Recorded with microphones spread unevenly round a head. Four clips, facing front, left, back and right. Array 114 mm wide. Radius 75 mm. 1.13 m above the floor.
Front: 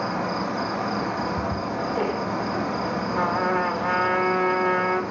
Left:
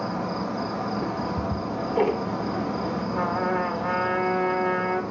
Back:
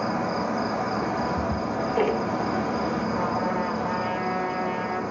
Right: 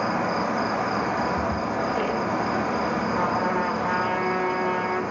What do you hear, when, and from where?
0.0 s an insect: 65° right, 1.2 m
1.0 s ticking: 110° left, 0.8 m
3.1 s a trumpet: 20° right, 2.5 m